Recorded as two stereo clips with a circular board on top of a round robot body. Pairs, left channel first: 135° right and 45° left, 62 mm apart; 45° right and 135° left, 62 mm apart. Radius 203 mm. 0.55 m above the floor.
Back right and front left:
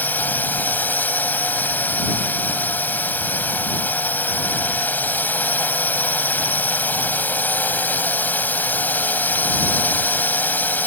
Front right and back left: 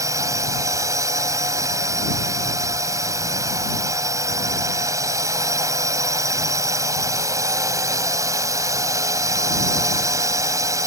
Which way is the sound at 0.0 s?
165° left.